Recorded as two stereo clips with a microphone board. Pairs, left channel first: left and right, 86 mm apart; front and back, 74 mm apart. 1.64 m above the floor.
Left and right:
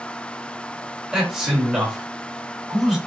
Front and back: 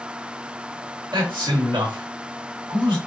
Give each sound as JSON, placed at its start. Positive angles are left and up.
{"t": 1.1, "sound": "a man speaking", "azimuth_deg": -170, "distance_m": 1.5}